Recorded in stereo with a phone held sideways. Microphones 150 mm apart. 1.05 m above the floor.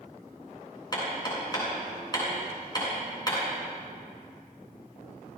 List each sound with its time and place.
0.9 s hammering: 30° left (ahead or behind), 7 m